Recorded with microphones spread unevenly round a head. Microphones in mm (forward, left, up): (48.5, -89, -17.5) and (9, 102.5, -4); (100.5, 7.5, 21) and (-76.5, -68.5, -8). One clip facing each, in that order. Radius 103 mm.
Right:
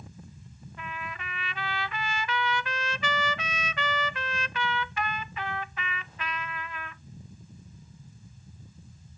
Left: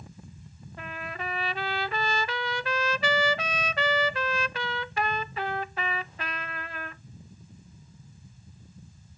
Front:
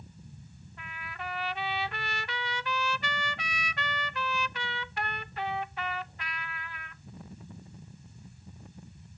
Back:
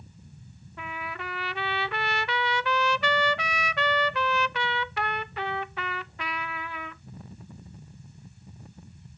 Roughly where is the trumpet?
Behind.